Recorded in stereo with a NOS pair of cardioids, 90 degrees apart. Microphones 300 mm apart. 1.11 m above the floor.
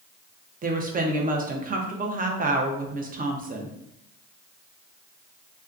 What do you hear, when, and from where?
0.6 s a woman speaking: 30° right, 0.8 m